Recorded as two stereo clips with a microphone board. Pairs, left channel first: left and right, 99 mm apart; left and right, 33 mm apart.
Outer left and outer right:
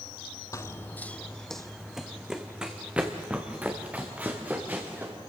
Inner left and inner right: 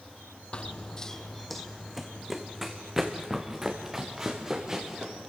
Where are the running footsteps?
35° left (ahead or behind), 0.6 m; by 5.1 s 15° right (ahead or behind), 3 m.